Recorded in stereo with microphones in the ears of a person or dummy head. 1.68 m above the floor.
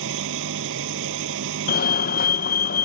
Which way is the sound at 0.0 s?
75° right (ahead or behind).